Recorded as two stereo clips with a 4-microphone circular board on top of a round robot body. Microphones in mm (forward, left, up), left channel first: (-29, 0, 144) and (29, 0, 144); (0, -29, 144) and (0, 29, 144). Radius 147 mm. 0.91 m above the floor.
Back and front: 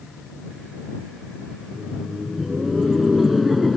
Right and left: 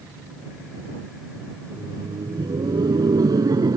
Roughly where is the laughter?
Left.